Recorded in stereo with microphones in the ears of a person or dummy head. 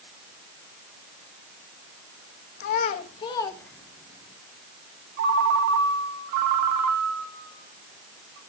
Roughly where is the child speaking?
Left.